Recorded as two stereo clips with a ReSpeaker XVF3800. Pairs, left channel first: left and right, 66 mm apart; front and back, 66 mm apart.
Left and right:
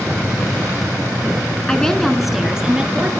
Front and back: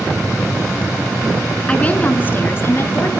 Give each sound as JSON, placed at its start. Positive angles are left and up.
{"t": 1.7, "sound": "a woman speaking", "azimuth_deg": 35, "distance_m": 1.4}